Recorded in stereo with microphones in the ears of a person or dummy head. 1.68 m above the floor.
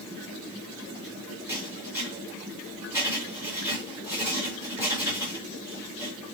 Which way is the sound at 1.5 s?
10° right (ahead or behind).